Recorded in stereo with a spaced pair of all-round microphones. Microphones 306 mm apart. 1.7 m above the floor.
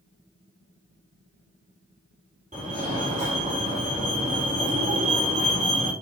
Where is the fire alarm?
25° right (ahead or behind), 5 m.